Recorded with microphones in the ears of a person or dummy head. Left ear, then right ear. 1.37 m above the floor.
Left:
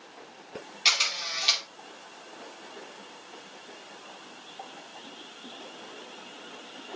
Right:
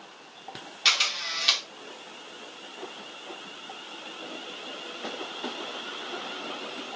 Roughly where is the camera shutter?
Centre.